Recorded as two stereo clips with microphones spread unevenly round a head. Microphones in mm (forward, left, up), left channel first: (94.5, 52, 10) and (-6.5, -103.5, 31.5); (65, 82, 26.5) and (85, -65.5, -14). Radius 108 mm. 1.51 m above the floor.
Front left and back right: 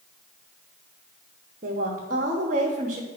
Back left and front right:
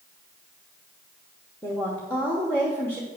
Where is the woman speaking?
Straight behind, 1.0 m.